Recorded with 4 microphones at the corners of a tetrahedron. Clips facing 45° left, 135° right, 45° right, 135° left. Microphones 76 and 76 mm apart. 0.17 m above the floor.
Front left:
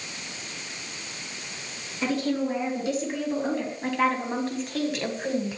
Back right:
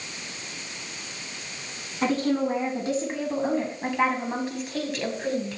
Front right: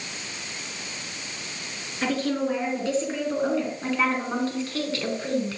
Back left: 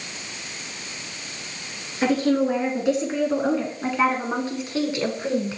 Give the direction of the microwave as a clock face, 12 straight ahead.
I don't hear a microwave.